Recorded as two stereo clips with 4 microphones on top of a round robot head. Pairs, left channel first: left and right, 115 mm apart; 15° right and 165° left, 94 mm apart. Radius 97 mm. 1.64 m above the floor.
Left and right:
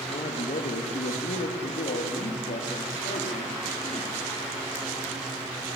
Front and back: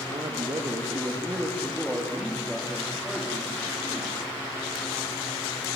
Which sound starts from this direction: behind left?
A man speaking, at 0.1 s.